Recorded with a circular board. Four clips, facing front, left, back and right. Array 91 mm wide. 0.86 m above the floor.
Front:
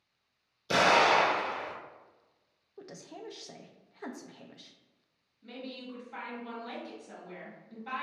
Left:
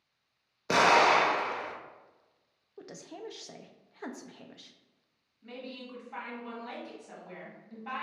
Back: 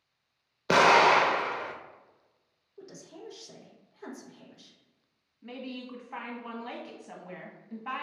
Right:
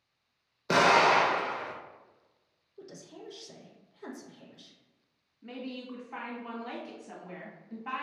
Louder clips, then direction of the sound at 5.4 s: Right 3 dB, back 3 dB; 165° right.